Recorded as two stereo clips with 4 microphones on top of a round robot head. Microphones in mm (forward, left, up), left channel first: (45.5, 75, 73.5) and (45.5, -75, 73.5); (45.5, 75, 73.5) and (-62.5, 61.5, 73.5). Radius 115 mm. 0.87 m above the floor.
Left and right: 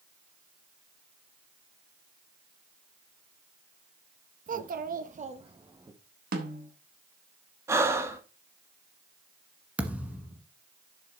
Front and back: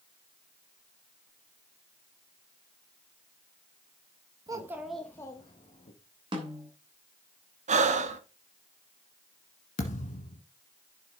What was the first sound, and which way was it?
A child speaking, 120° right.